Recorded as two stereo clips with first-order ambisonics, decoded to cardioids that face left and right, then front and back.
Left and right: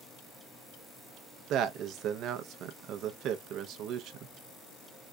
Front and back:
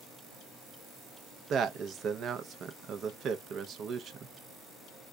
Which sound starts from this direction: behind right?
A man speaking, at 1.5 s.